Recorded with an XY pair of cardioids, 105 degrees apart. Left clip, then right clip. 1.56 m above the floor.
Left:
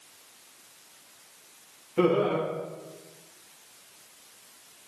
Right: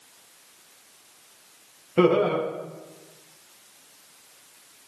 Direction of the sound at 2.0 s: 50° right.